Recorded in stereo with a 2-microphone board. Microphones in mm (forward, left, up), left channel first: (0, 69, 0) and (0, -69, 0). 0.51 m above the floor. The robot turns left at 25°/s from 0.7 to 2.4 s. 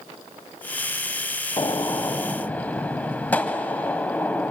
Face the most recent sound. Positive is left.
turn(degrees=10)  # may be behind; listen again after turning